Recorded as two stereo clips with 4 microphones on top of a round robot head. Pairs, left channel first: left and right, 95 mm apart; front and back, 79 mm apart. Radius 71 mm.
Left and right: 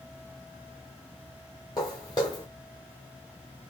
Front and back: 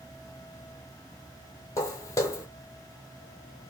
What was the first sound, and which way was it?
Footsteps, 35° left.